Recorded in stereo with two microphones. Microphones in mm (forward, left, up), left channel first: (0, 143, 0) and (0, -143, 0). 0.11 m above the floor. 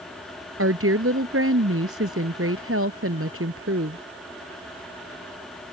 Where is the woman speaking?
50° right (ahead or behind).